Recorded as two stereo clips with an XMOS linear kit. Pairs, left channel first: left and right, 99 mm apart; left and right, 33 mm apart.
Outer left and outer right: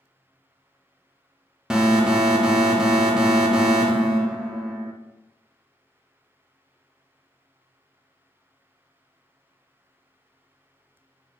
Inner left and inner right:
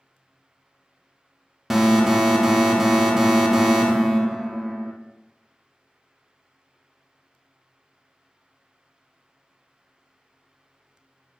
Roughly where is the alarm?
Centre.